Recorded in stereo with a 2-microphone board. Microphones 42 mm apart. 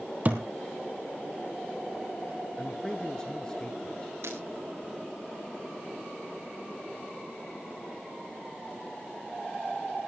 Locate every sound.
0.2 s a thud: 40° right (ahead or behind), 1.7 m
2.6 s a man speaking: 15° left (ahead or behind), 1.1 m
4.2 s breaking glass: 80° right, 5 m